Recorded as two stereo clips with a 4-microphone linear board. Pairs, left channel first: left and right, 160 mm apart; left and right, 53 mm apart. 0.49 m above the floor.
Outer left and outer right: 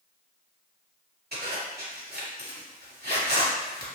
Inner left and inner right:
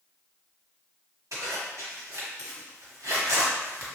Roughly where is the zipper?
Right.